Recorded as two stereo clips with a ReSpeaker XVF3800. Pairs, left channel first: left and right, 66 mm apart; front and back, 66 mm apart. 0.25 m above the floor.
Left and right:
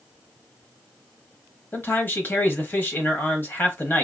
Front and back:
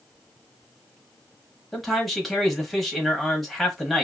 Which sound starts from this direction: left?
A man speaking, at 1.7 s.